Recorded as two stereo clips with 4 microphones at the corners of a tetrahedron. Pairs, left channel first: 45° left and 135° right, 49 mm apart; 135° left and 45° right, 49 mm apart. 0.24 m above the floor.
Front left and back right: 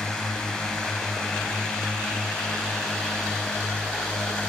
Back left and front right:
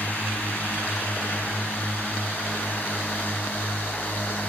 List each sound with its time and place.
0.0 s a drone: 110° left